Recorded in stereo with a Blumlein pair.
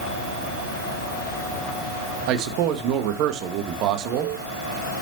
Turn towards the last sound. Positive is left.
turn(degrees=-40)